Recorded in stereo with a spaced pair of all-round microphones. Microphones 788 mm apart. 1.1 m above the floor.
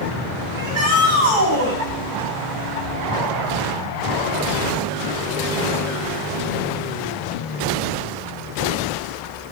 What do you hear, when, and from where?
0.5 s a shout: 15° left (ahead or behind), 5.5 m